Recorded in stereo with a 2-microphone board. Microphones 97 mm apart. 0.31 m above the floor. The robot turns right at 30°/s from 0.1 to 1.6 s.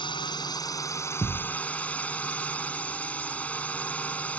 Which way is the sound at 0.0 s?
120° left.